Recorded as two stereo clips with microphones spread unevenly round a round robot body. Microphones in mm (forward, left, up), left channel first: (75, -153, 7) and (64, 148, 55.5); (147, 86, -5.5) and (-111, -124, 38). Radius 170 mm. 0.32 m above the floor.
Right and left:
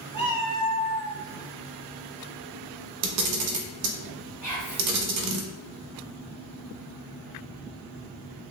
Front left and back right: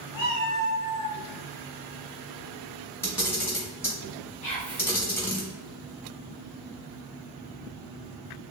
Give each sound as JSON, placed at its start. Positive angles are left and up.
{"t": 0.1, "sound": "a cat meowing", "azimuth_deg": 15, "distance_m": 1.4}
{"t": 3.0, "sound": "a camera shutter", "azimuth_deg": 115, "distance_m": 0.5}
{"t": 4.4, "sound": "whispering", "azimuth_deg": -20, "distance_m": 1.7}